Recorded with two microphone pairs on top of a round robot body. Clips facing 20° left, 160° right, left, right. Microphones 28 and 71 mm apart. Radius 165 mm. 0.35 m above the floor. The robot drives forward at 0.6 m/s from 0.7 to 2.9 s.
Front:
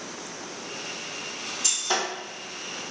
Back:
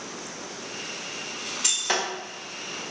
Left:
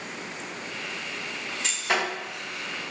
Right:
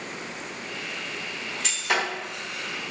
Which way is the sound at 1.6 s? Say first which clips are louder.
Back 1 dB, right 1 dB; 160° left.